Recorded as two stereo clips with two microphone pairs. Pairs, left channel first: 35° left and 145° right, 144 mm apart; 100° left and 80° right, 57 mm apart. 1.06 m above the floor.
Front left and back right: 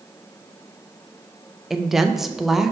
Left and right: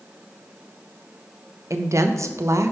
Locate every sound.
1.7 s a woman speaking: 60° right, 0.6 m